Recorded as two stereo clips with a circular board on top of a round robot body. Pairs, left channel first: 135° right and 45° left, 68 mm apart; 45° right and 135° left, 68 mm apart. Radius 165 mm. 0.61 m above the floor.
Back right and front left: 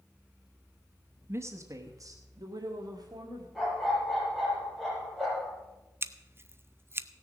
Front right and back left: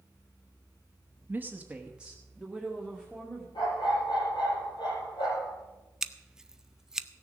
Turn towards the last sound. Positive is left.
turn(degrees=60)